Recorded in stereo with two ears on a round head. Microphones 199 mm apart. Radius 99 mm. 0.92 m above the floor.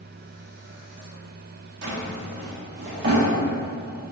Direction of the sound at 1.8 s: 50° right (ahead or behind).